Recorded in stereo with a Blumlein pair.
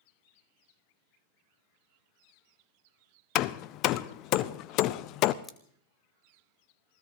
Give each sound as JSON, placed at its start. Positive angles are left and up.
{"t": 3.4, "sound": "hammering", "azimuth_deg": 40, "distance_m": 0.6}
{"t": 5.4, "sound": "scissors", "azimuth_deg": 20, "distance_m": 1.4}